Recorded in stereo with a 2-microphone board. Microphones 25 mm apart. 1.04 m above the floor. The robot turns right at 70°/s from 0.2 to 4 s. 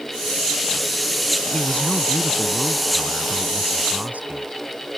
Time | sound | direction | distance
1.5 | a man speaking | 85° left | ?